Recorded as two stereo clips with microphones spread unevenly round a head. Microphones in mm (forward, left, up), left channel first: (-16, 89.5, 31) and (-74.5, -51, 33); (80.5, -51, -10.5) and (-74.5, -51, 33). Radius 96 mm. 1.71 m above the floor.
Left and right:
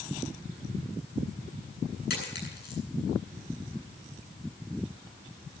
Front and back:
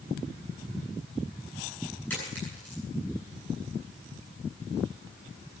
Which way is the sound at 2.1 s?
85° left.